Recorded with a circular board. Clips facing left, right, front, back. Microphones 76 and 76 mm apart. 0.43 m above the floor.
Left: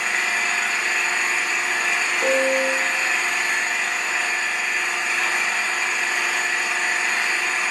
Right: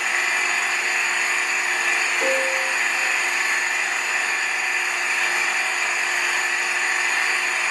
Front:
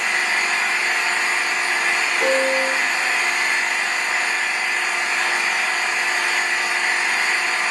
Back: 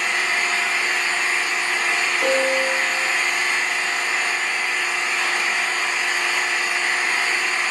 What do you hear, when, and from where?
0.0 s an engine running: 5° right, 1.2 m
2.2 s a piano: 40° right, 2 m